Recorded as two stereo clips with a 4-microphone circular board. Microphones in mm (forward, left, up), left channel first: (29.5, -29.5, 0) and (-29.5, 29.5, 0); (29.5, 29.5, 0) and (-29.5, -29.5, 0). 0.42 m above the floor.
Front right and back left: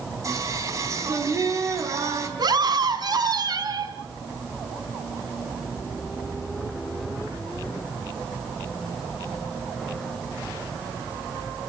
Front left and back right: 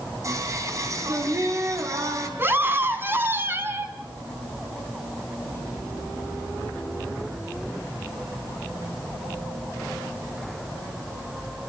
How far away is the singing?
About 4 m.